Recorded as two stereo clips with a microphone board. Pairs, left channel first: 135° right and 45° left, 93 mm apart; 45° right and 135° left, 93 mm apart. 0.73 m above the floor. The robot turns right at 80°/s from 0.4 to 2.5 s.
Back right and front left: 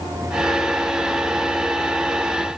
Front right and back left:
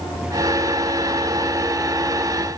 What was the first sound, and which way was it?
Only background noise.